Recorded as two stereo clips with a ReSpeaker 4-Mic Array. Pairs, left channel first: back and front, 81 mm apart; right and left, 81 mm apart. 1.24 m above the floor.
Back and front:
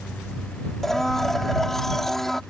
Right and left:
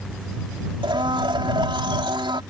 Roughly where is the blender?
Left.